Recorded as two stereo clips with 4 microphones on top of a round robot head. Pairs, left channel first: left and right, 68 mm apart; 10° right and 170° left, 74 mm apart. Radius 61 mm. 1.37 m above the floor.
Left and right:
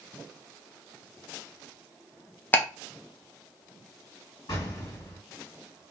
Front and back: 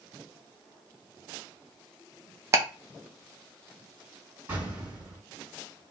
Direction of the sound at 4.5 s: 110° left.